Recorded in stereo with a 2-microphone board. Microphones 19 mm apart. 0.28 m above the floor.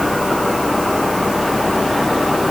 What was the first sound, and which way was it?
Only background noise.